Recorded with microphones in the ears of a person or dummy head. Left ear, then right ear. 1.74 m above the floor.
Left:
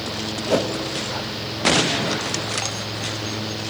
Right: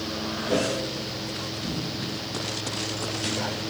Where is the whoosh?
35° left (ahead or behind), 1.0 m.